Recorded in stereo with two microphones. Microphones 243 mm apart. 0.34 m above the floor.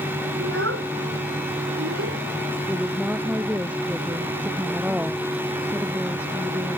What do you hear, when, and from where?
0.4 s a child speaking: 70° right (ahead or behind); by 2.2 s 80° right
2.7 s a woman speaking: 5° right (ahead or behind)